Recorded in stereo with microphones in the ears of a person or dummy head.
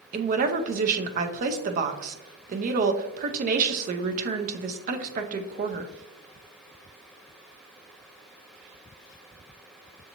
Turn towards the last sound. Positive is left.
turn(degrees=-45)  # may be behind; listen again after turning